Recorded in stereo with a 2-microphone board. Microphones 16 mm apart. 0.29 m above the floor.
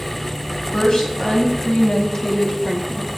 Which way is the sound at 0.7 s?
60° left (ahead or behind).